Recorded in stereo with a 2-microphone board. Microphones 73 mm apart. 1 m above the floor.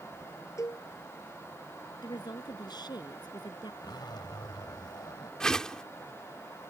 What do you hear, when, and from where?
0.6 s a cowbell: 45° left (ahead or behind)
2.0 s a woman speaking: 75° left (ahead or behind)
3.8 s a zipper: 80° left
5.4 s a whoosh: 10° left (ahead or behind)